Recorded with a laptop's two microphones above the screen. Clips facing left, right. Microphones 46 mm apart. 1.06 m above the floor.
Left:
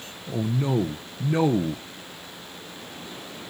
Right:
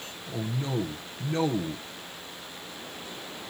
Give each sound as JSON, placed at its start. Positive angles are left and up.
{"t": 0.3, "sound": "a man speaking", "side_deg": 20, "distance_m": 0.6}